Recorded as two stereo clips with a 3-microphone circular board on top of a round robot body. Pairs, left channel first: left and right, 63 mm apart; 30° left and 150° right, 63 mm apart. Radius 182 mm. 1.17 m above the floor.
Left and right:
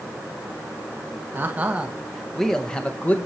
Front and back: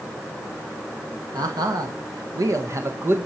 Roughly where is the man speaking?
Behind right.